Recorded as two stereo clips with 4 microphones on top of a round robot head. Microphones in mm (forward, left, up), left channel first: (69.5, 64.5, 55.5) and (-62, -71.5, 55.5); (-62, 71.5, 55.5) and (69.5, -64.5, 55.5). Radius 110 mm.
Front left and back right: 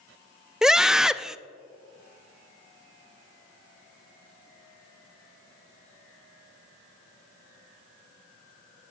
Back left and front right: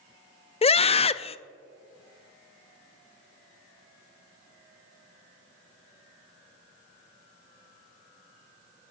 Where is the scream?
140° left, 0.6 m.